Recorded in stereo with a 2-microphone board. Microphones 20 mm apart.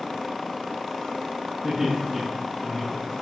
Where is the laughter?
10° right (ahead or behind), 1.5 m; by 3.1 s 20° left (ahead or behind), 1.7 m.